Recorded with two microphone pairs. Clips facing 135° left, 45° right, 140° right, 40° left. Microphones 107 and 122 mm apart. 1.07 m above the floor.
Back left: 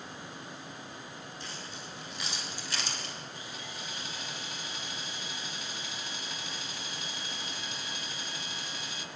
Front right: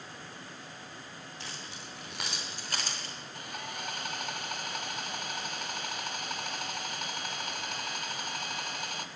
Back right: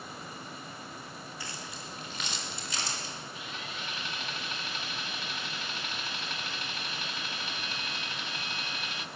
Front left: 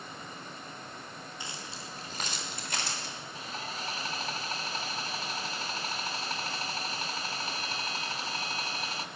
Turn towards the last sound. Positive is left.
turn(degrees=-15)